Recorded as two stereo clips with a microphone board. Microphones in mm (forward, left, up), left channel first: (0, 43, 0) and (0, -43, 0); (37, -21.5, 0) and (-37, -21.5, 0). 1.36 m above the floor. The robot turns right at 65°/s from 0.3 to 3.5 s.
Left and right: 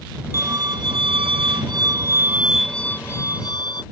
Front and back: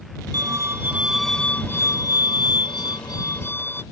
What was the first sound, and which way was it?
A violin, 145° right.